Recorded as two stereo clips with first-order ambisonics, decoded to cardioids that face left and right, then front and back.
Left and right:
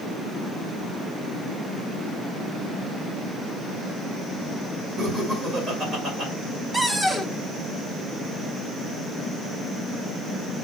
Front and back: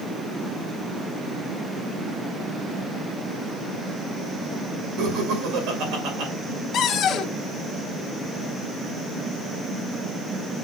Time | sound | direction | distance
5.0 | laughter | 160° right | 2.5 m
6.7 | a cupboard door | 10° right | 0.7 m